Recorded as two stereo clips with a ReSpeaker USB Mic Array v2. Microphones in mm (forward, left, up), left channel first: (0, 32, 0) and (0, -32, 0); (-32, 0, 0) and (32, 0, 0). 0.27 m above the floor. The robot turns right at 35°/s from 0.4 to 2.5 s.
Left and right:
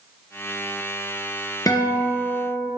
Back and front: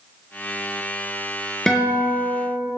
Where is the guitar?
100° left, 2.5 m; by 2.7 s 130° left, 2.5 m.